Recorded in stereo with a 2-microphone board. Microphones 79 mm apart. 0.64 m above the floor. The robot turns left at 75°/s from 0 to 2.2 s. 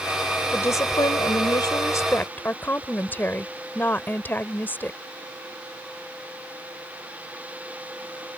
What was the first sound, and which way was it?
A woman speaking, 150° left.